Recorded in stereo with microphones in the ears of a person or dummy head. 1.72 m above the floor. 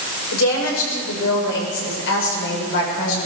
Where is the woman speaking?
80° left, 7.5 m; by 3.3 s 65° left (ahead or behind), 7 m.